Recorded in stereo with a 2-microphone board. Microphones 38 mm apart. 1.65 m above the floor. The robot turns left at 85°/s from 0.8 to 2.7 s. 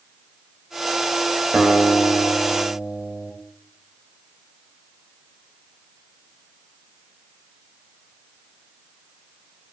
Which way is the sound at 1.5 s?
45° right.